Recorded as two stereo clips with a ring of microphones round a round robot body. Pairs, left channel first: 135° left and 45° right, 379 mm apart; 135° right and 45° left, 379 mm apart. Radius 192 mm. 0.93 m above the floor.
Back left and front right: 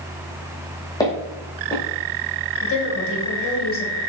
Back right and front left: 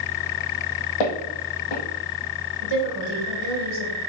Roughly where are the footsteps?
Behind right.